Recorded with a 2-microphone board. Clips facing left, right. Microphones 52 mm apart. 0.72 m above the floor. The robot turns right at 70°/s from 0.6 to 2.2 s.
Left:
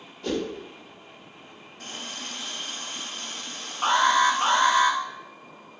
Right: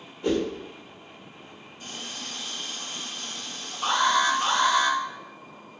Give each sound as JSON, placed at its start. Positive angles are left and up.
{"t": 0.2, "sound": "a whoosh", "side_deg": -20, "distance_m": 0.8}
{"t": 1.8, "sound": "a running tap", "side_deg": 80, "distance_m": 1.6}
{"t": 3.8, "sound": "an alarm", "side_deg": 35, "distance_m": 0.8}